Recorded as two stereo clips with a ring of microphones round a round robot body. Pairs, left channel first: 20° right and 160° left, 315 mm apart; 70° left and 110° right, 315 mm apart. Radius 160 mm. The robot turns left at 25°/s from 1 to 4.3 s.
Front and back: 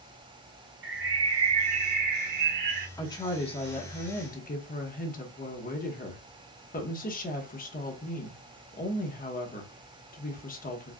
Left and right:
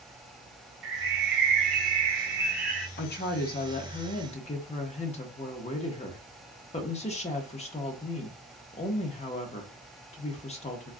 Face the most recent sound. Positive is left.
turn(degrees=15)